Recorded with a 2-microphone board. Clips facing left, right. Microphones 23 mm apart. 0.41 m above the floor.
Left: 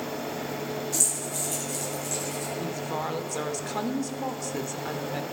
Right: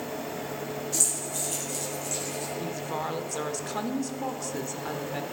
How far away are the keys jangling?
About 7 m.